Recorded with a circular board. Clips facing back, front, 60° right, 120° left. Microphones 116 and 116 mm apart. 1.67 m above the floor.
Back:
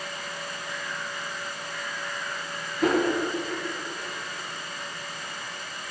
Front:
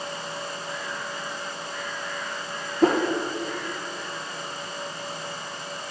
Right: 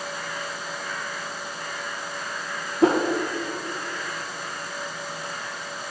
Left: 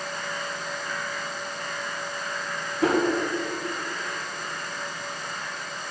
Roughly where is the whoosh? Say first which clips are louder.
Front 3 dB, right 3 dB; ahead.